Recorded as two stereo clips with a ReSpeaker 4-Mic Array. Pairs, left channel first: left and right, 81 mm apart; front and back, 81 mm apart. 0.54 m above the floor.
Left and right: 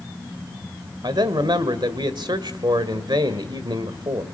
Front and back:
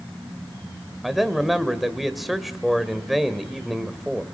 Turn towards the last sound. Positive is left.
turn(degrees=-90)